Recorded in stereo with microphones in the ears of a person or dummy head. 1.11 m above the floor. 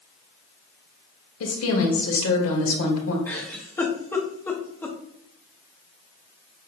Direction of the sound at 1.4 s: 75° left (ahead or behind).